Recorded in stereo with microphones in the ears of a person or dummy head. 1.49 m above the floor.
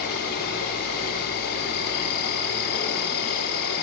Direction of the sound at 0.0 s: 50° left (ahead or behind).